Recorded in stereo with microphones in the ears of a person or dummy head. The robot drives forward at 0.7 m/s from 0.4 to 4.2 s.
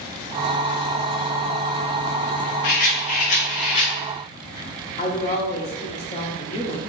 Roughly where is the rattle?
Left.